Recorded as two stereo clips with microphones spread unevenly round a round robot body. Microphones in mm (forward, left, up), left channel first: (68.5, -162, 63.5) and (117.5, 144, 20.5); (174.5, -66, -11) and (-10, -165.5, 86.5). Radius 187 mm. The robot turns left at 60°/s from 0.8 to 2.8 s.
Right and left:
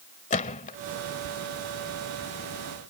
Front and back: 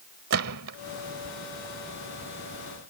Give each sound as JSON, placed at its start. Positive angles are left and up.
{"t": 0.3, "sound": "a gunshot", "azimuth_deg": -170}